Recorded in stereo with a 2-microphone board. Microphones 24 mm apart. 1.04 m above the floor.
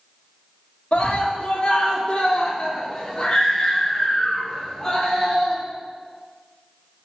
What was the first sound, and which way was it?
A scream, 60° left (ahead or behind).